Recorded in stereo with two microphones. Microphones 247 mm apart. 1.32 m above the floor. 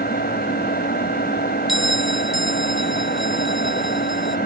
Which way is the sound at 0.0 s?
40° left (ahead or behind).